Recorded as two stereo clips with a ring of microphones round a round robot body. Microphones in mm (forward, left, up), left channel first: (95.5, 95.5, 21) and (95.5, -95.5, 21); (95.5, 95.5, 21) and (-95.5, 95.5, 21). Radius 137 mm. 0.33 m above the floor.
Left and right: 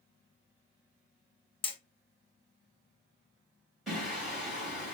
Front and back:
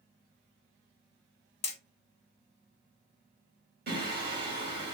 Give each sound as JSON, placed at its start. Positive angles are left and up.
{"t": 1.6, "sound": "hammering", "azimuth_deg": 40, "distance_m": 1.0}
{"t": 3.9, "sound": "singing", "azimuth_deg": 180, "distance_m": 2.5}